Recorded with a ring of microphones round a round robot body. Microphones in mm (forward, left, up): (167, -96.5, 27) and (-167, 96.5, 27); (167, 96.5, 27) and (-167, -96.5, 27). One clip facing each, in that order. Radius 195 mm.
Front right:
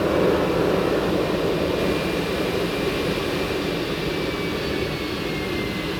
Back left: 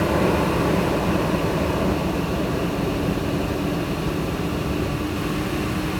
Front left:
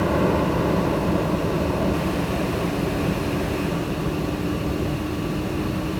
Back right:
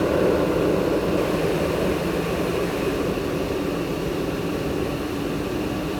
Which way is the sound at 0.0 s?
90° left.